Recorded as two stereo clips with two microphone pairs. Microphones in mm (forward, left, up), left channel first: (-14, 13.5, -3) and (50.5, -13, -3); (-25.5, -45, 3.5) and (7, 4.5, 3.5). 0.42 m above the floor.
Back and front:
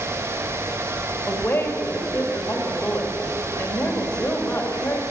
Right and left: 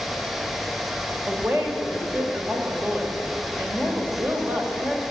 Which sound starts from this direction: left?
A woman speaking, at 1.3 s.